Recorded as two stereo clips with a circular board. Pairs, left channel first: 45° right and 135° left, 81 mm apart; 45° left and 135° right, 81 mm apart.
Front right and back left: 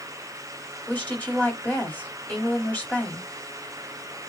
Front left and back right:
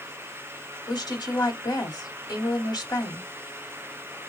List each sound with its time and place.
0.9 s a woman speaking: 20° left, 2 m